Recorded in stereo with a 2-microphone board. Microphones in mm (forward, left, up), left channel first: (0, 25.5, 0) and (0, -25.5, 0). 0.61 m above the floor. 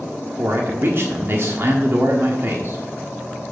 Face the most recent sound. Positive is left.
turn(degrees=-50)  # may be behind; listen again after turning